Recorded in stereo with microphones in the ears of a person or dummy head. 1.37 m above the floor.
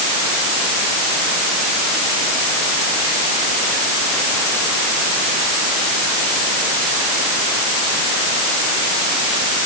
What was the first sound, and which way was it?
Only background noise.